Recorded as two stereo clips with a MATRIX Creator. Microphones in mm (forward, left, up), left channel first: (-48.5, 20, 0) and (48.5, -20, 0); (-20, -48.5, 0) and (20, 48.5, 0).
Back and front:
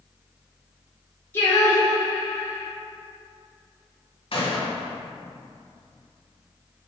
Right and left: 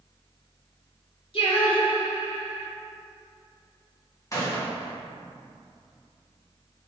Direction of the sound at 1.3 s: 135° right.